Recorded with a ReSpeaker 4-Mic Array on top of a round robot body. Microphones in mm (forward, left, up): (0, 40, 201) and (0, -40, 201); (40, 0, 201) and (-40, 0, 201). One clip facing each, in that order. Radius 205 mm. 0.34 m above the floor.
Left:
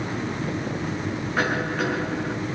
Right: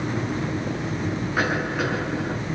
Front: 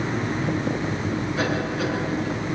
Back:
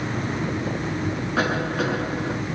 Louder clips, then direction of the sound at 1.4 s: Even, back 4 dB; 175° right.